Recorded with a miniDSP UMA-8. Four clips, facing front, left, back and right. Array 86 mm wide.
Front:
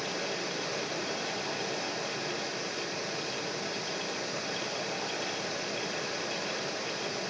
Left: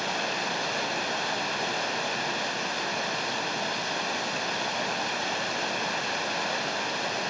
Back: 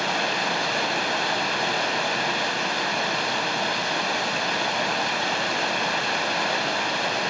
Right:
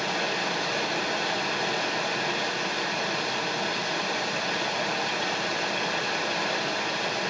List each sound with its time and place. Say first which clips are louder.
0.0 s running water: right 2 dB, back 10 dB; straight behind, 1.1 m